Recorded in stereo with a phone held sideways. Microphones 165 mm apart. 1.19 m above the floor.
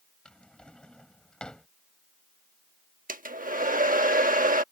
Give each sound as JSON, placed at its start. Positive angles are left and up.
{"t": 0.2, "sound": "a drawer", "side_deg": 5}
{"t": 3.1, "sound": "a hair dryer", "side_deg": -50}